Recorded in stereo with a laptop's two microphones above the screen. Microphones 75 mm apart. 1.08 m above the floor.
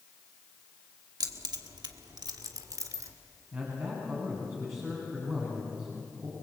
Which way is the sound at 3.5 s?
35° right (ahead or behind).